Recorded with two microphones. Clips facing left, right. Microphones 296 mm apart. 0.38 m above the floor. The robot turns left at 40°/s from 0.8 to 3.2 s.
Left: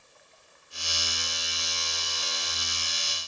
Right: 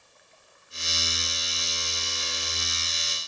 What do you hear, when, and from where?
Only background noise.